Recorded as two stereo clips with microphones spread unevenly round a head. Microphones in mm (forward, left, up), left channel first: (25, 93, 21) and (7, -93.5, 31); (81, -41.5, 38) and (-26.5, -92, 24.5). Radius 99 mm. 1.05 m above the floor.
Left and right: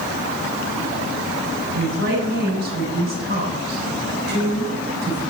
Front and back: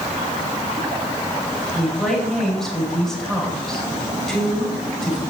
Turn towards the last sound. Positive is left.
turn(degrees=-60)